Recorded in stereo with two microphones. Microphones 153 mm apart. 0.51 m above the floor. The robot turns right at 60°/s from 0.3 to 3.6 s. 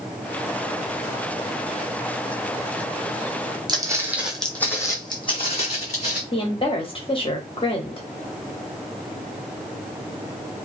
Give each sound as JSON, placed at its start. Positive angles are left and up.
{"t": 3.7, "sound": "footsteps", "side_deg": -30, "distance_m": 1.0}
{"t": 6.3, "sound": "a woman speaking", "side_deg": 35, "distance_m": 0.9}